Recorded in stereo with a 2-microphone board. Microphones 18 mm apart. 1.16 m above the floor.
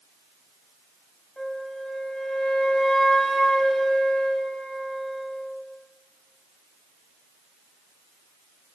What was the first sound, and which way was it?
A flute, 40° left (ahead or behind).